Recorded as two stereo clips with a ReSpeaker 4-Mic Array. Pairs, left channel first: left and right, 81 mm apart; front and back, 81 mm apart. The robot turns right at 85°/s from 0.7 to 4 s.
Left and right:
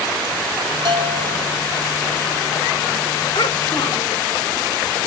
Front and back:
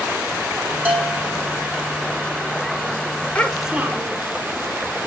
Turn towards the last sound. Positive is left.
turn(degrees=125)